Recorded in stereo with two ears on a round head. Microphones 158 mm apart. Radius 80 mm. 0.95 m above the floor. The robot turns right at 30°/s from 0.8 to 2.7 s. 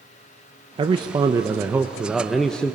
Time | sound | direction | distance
0.8 | a man speaking | 45° right | 0.6 m